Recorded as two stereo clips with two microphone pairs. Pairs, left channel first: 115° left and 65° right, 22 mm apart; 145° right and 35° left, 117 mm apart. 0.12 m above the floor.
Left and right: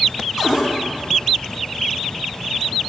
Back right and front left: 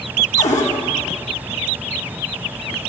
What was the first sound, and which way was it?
A cupboard door, 140° right.